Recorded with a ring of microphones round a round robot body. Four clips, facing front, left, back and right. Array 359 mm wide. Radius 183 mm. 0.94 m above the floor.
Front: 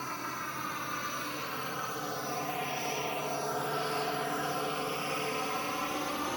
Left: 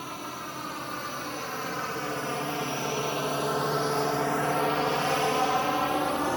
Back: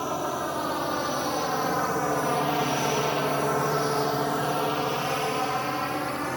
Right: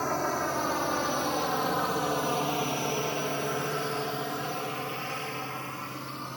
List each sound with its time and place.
0.0 s a drone: 140° right; by 6.4 s 105° left